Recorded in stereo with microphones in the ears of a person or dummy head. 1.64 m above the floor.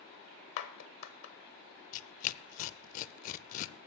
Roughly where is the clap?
Left.